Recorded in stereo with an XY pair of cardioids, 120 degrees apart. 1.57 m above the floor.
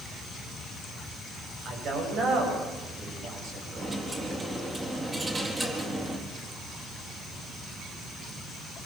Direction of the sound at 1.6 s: 65° right.